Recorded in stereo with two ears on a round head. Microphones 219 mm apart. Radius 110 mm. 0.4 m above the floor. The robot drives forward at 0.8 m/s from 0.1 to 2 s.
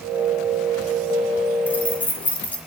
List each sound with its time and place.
1.7 s keys jangling: 10° left (ahead or behind), 2 m; by 2.6 s 5° left (ahead or behind), 2.5 m